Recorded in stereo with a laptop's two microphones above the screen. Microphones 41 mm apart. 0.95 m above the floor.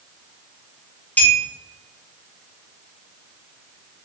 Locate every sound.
1.2 s a clink: 45° left (ahead or behind), 2 m